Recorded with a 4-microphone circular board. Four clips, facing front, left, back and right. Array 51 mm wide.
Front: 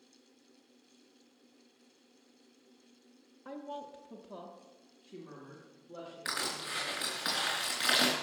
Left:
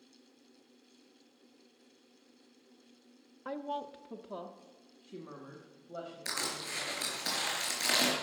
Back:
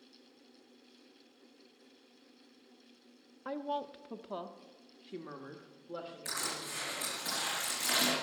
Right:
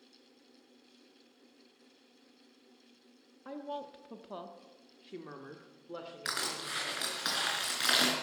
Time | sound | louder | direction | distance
3.5 | a woman speaking | left 3 dB, back 6 dB | 140° left | 0.7 m
6.2 | crushing | right 2 dB, front 5 dB | 55° right | 4 m